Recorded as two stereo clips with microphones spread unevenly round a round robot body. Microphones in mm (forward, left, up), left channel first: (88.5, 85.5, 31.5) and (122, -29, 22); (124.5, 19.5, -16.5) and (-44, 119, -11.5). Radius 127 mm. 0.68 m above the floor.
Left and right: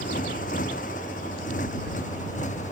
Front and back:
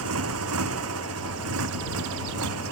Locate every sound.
0.0 s a motorcycle: 155° left; by 2.7 s 165° left